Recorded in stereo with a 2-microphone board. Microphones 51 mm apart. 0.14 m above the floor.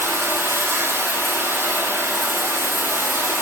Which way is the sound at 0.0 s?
50° right (ahead or behind).